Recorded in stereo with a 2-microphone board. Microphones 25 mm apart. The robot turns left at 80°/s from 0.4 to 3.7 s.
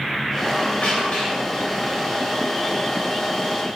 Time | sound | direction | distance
0.5 | a squeak | 105° left | 1.7 m